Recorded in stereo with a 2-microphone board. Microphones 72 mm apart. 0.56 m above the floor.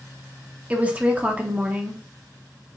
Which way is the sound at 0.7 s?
20° right (ahead or behind).